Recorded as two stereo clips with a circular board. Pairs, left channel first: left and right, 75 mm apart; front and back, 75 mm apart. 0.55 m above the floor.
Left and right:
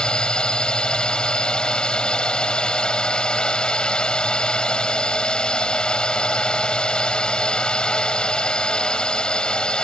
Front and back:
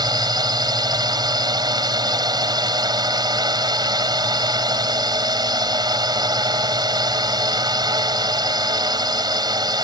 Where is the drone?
165° left.